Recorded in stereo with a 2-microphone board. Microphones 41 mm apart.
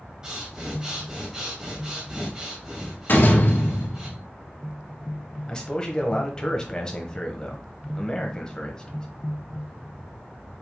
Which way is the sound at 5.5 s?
15° left (ahead or behind).